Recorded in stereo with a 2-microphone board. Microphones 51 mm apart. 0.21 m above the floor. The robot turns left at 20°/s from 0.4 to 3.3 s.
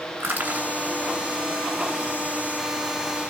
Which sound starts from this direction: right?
Crushing, at 0.2 s.